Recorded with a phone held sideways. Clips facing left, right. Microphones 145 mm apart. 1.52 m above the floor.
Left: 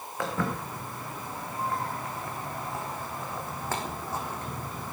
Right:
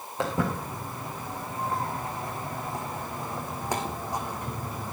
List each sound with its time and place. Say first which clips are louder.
0.2 s footsteps: right 3 dB; 20° right (ahead or behind), 5 m; by 4.9 s 10° right (ahead or behind), 3 m